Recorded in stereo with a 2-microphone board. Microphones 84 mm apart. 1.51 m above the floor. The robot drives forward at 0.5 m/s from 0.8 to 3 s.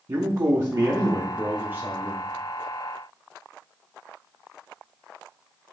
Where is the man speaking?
45° right (ahead or behind), 0.7 m; by 2.3 s 20° right (ahead or behind), 1.3 m.